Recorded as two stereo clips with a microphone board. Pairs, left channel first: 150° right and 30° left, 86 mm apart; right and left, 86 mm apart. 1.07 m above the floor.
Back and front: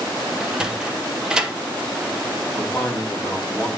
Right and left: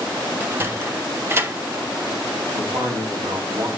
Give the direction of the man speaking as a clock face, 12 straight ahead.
8 o'clock.